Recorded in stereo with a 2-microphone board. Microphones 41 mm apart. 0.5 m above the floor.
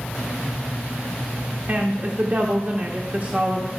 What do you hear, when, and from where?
1.7 s a woman speaking: 40° right (ahead or behind), 1.1 m